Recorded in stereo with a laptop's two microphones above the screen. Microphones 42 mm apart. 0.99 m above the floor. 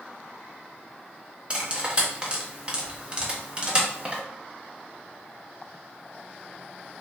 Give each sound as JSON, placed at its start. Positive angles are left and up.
{"t": 1.5, "sound": "cutlery clinking", "side_deg": -25, "distance_m": 0.8}